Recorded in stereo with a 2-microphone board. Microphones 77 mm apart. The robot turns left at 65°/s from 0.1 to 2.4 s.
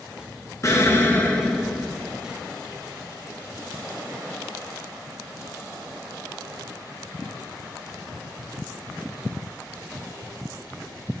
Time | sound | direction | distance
0.6 | an explosion | 70° left | 1.4 m